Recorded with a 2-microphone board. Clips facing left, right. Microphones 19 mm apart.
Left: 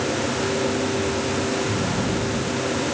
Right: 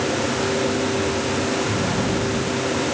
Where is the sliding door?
5° right (ahead or behind).